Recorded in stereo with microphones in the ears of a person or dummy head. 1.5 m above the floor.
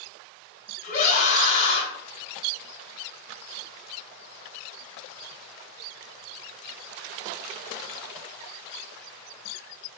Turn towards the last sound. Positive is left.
turn(degrees=40)  # may be behind; listen again after turning